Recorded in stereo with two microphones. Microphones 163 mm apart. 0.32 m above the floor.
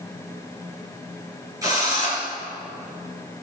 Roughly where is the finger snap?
No finger snap in this recording.